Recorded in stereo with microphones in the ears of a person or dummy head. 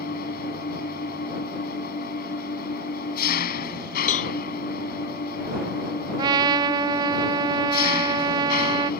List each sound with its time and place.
0.0 s an engine running: 50° left (ahead or behind)
4.1 s a cowbell: 40° left (ahead or behind)
6.2 s a trumpet: 25° right (ahead or behind)